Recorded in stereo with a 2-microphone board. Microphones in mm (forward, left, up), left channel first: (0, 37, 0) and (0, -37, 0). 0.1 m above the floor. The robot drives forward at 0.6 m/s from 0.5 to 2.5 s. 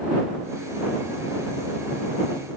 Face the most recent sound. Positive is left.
No sound to turn to.